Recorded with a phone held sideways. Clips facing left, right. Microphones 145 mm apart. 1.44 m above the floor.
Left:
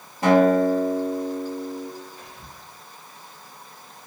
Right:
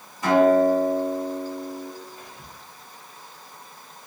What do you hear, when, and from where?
0.2 s a guitar: 65° left (ahead or behind), 1.4 m
2.2 s whispering: 35° right (ahead or behind), 1.1 m